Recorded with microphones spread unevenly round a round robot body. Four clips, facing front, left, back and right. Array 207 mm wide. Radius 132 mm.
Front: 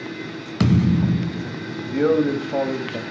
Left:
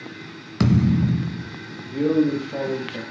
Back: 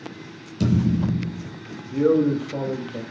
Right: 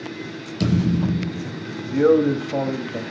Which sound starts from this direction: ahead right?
A man speaking, at 1.9 s.